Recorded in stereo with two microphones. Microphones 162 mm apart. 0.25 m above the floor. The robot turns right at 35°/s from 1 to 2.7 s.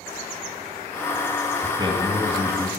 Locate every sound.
1.6 s a man speaking: 60° right, 1.8 m; by 2.7 s 20° right, 1.8 m